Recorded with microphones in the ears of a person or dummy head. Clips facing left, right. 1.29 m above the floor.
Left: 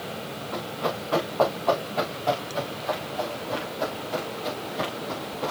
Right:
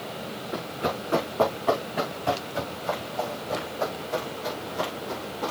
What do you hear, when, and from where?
0.5 s running footsteps: 15° right (ahead or behind), 6 m; by 5.5 s 15° left (ahead or behind), 3.5 m